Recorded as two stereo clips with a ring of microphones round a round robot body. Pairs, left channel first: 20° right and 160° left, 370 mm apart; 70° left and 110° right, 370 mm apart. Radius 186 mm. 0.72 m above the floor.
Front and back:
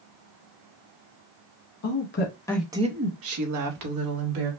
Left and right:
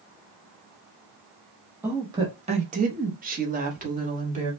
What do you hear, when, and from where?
1.8 s a woman speaking: 30° right, 0.9 m; by 4.5 s 175° left, 1.7 m